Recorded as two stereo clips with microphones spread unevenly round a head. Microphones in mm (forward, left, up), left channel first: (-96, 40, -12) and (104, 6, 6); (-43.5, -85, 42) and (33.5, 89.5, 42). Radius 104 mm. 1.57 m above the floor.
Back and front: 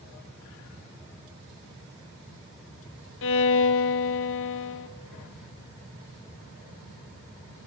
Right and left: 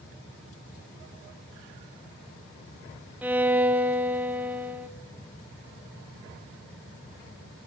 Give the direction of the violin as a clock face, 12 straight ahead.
7 o'clock.